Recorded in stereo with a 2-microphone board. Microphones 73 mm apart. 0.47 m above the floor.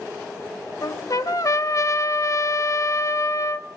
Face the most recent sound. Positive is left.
turn(degrees=55)  # may be behind; listen again after turning